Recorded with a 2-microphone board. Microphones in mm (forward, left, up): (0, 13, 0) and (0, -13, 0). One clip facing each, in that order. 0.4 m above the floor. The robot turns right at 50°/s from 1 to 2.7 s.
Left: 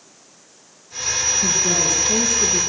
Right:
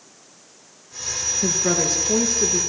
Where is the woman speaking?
95° right, 5.5 m; by 2.6 s 35° right, 5.5 m.